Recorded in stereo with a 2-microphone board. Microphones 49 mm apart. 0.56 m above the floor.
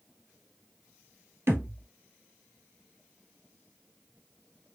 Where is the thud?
55° right (ahead or behind), 1.4 m.